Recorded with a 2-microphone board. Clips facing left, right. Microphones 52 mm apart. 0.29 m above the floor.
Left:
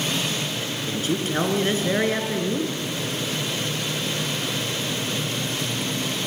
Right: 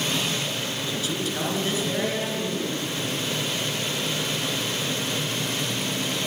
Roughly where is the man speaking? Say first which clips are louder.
Left 5 dB; left.